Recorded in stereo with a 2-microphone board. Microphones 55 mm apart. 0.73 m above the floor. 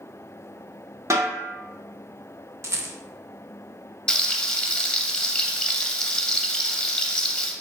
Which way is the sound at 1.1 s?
60° right (ahead or behind).